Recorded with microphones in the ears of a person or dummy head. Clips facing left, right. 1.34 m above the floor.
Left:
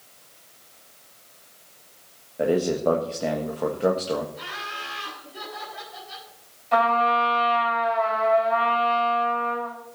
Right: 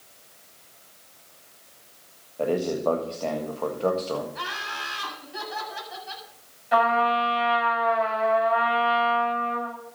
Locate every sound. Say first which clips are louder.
2.4 s a man speaking: left 3 dB; 15° left (ahead or behind), 1.4 m
4.3 s laughter: right 1 dB; 90° right, 7.5 m
6.7 s a trumpet: even; 15° right (ahead or behind), 6 m